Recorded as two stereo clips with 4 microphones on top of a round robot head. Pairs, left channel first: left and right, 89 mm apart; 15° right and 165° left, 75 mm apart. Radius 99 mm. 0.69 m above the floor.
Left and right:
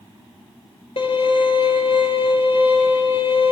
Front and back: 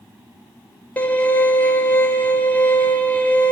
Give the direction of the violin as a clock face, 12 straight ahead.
10 o'clock.